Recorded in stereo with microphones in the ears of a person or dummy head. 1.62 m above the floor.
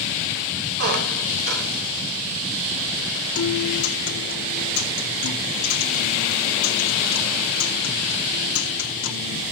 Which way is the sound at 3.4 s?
85° left.